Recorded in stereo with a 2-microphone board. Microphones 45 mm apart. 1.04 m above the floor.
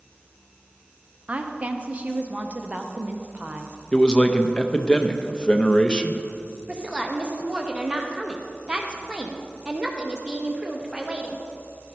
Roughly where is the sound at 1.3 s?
Right.